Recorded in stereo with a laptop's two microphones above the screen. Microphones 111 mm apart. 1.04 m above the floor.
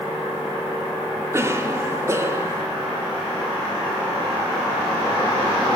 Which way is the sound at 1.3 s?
25° right (ahead or behind).